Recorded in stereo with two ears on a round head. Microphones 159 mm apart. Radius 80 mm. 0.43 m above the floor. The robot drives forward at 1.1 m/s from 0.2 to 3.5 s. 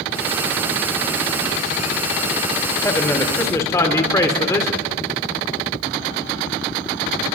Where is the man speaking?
15° left (ahead or behind), 1.9 m.